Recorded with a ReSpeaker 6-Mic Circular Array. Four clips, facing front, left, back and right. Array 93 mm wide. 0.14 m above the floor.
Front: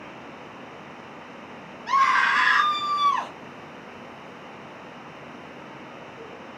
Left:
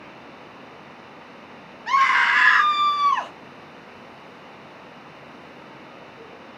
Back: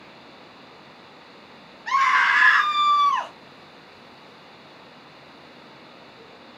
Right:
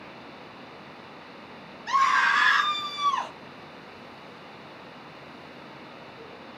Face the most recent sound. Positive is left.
turn(degrees=130)